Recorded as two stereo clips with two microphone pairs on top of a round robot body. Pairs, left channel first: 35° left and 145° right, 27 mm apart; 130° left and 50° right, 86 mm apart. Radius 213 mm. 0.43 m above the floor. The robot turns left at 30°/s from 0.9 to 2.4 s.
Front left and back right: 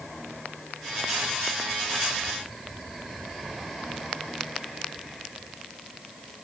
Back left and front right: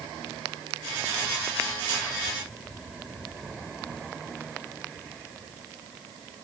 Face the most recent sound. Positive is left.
No sound to turn to.